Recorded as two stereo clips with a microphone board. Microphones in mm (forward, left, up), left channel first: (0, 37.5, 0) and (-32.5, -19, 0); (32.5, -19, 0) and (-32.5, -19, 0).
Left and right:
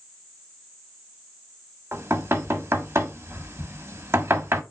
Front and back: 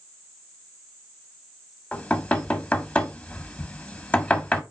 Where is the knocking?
70° right, 1.4 m.